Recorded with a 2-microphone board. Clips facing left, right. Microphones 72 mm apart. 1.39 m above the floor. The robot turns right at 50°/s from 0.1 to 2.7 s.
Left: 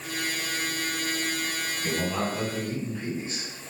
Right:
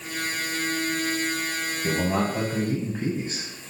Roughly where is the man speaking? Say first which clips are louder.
Right 4 dB; behind.